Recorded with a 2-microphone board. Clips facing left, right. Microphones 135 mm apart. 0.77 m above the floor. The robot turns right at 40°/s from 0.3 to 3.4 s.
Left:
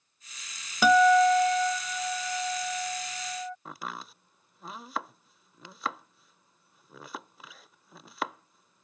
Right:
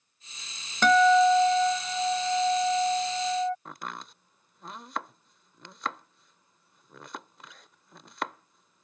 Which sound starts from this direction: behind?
A guitar, at 0.8 s.